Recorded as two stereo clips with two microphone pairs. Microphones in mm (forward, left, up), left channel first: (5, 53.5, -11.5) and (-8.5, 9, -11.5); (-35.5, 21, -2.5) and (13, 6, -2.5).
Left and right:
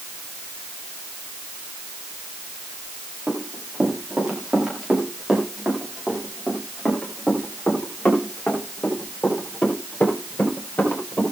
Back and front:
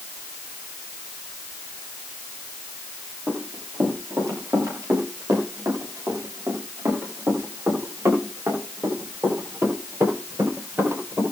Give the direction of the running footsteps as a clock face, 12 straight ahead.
1 o'clock.